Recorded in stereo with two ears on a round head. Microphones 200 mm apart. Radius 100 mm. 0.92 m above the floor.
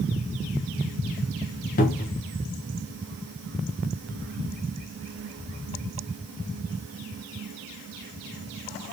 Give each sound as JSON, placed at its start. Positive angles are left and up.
{"t": 1.8, "sound": "a cupboard door", "side_deg": 40, "distance_m": 0.6}